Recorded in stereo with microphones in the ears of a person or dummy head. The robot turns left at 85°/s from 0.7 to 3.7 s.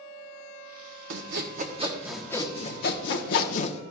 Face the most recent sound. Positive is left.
turn(degrees=50)